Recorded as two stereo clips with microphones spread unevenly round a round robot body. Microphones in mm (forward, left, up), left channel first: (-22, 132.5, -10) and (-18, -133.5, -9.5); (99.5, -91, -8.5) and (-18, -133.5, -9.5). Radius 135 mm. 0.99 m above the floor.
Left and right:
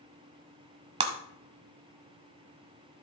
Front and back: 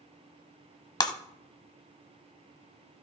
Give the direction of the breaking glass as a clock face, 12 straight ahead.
1 o'clock.